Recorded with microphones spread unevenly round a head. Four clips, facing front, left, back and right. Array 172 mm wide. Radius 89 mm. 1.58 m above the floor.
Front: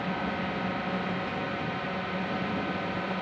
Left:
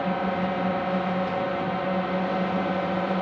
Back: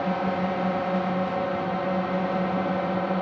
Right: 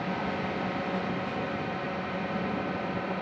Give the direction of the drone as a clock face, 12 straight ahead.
7 o'clock.